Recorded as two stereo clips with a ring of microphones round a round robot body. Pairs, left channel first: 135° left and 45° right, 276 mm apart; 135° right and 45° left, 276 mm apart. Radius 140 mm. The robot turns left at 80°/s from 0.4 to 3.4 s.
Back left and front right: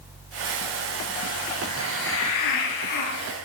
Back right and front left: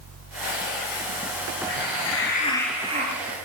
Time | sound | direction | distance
1.7 | a hiss | 145° right | 3.5 m